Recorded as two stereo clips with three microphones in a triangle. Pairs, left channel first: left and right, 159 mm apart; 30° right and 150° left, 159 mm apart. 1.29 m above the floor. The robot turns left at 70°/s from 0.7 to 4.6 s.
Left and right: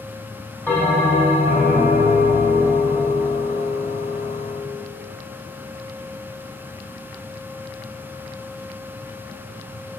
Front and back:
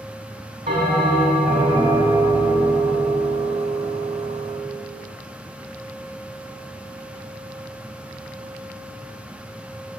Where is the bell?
170° left, 1.9 m; by 4.8 s 105° right, 1.9 m.